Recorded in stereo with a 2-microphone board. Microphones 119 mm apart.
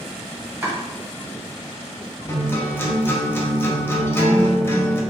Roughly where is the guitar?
Centre.